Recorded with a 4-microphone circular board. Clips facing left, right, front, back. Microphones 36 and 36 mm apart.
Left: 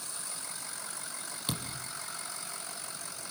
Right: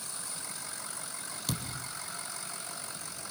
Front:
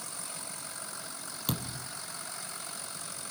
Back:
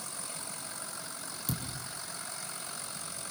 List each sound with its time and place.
1.5 s a thud: 25° left, 3.5 m